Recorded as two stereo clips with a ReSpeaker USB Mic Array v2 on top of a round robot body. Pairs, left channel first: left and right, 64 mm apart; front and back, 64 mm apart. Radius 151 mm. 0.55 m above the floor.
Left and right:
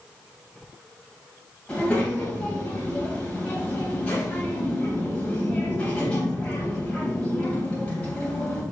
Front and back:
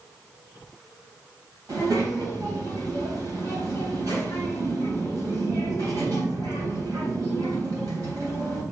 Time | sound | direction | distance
1.7 | a child speaking | 160° left | 3.5 m